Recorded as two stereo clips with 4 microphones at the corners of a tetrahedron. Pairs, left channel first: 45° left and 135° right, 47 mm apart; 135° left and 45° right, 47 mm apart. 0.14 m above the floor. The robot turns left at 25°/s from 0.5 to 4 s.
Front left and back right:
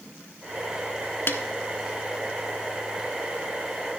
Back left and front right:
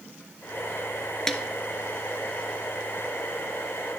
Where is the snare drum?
60° left, 0.7 m; by 1.4 s 55° left, 0.7 m.